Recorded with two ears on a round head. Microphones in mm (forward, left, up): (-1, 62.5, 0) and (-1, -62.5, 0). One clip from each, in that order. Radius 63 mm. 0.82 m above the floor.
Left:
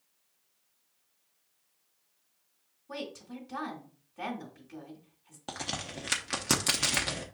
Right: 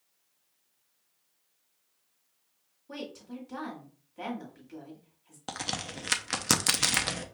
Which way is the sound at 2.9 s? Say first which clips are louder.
Left 1 dB; 5° right (ahead or behind).